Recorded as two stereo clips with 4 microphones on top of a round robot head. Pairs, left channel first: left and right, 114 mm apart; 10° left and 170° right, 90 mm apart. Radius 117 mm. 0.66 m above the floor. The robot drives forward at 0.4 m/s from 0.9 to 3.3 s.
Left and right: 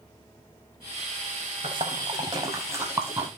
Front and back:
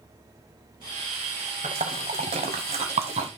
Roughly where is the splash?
Behind right.